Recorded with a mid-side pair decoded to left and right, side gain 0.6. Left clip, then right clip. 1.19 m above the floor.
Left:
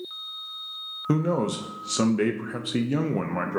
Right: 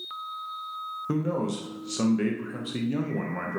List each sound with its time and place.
1.1 s a man speaking: 30° left, 0.8 m